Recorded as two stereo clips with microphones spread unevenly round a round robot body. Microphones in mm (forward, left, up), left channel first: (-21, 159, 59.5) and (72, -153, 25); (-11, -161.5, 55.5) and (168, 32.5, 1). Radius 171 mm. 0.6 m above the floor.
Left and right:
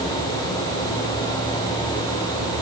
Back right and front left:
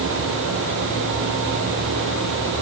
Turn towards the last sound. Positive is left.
No sound to turn to.